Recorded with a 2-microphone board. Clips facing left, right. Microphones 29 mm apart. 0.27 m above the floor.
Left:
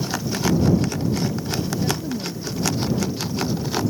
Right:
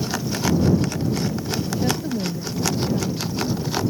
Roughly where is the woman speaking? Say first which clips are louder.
Right 1 dB; right.